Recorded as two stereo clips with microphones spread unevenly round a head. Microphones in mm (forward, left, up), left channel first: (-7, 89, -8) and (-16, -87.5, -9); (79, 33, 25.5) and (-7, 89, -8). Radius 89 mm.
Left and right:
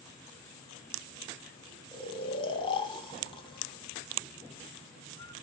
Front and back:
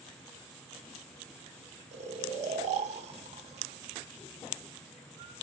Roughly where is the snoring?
Behind left.